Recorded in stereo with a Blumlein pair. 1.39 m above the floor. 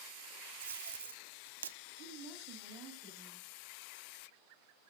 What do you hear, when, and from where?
0.6 s tape being pulled: 65° right, 0.6 m
2.0 s a woman speaking: 20° left, 8 m